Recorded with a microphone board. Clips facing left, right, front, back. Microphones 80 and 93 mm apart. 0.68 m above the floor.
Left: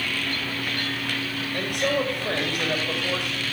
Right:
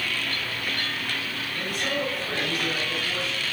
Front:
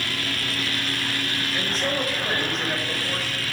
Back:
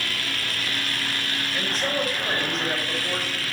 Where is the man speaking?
90° left, 3 m.